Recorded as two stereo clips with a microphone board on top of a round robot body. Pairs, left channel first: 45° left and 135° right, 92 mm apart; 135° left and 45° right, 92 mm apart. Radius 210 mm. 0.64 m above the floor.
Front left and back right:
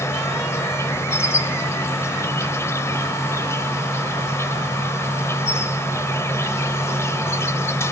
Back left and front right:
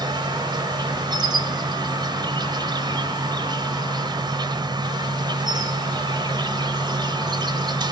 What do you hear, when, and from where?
0.0 s an insect: 10° right, 1.0 m